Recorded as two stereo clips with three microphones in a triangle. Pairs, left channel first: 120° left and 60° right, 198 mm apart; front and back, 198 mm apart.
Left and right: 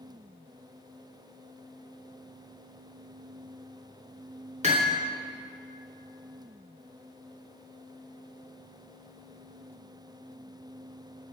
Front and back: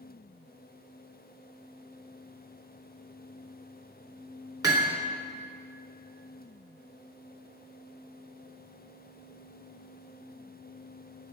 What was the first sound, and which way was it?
Hammering, 110° right.